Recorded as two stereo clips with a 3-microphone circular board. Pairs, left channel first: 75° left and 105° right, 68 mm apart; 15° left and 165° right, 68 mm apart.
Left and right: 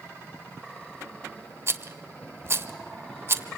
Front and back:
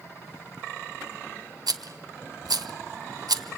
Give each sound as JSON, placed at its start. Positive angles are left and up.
{"t": 1.7, "sound": "a rattle", "azimuth_deg": -155, "distance_m": 0.9}